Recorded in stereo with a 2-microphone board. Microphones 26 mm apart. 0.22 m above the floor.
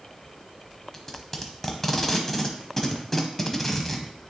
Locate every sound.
0.9 s tape being pulled: 15° left (ahead or behind), 1.0 m